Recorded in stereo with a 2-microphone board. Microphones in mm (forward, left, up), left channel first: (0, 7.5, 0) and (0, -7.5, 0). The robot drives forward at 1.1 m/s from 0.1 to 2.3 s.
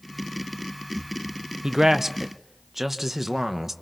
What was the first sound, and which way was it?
A man speaking, 50° right (ahead or behind).